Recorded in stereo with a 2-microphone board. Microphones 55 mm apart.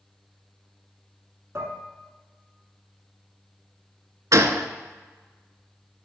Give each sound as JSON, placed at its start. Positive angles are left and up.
{"t": 1.6, "sound": "dishes clattering", "side_deg": -55, "distance_m": 1.2}
{"t": 4.3, "sound": "a gunshot", "side_deg": -75, "distance_m": 0.5}